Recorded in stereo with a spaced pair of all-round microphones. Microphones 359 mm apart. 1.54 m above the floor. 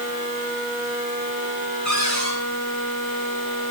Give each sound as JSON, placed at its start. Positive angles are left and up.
{"t": 1.9, "sound": "a cupboard door", "side_deg": -50, "distance_m": 9.5}